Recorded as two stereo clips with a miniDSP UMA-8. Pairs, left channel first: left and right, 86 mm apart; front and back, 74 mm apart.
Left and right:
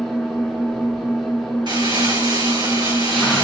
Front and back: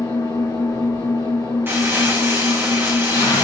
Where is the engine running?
Straight ahead, 3 m.